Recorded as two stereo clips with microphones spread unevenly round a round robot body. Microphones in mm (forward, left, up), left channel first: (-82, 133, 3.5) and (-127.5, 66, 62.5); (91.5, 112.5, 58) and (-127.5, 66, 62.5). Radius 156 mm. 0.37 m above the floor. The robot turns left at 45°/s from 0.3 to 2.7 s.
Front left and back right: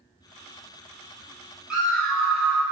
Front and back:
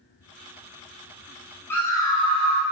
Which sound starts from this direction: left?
A scream, at 1.7 s.